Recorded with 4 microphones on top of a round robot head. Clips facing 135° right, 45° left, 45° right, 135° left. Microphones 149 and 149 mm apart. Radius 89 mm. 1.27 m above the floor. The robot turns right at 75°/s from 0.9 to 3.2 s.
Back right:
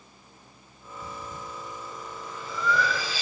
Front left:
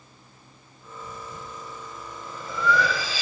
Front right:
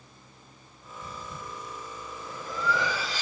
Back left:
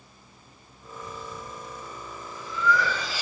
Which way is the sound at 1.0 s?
110° right.